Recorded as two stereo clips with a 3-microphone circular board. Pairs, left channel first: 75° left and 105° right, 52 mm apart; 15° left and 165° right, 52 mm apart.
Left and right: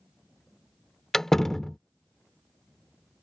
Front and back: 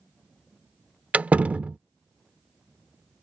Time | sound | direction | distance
1.1 | a door slam | 155° left | ?